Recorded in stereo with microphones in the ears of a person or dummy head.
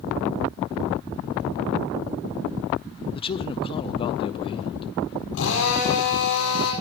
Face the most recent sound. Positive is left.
turn(degrees=70)  # may be behind; listen again after turning